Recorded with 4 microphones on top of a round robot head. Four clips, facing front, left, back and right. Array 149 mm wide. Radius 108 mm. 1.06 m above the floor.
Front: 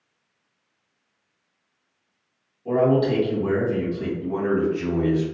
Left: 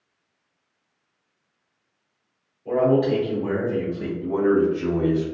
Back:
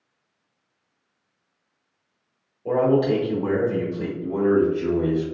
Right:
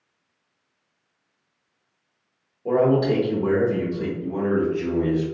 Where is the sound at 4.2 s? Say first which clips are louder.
Left 5 dB, back 4 dB; 50° left, 1.8 m.